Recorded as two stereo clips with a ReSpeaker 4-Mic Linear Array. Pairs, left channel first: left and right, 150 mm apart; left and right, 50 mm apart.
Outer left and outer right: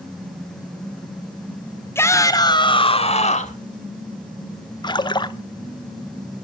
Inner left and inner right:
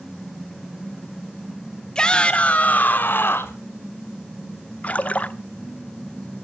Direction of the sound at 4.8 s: 30° left (ahead or behind).